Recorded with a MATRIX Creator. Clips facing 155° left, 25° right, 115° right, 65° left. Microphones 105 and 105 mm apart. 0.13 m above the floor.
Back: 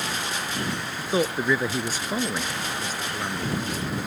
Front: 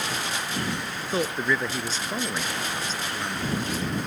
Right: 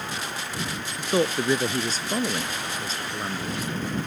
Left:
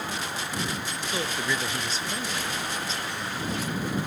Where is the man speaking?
130° right.